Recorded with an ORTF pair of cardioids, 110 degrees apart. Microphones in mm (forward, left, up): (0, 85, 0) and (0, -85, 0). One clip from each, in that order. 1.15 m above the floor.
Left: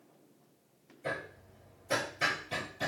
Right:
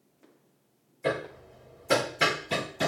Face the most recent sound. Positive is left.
turn(degrees=-70)